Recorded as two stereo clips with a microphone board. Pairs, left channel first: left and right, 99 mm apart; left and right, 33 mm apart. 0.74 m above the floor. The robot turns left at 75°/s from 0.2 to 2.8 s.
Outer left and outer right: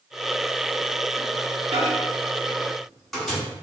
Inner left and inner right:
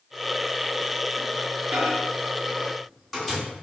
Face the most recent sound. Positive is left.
turn(degrees=5)  # may be behind; listen again after turning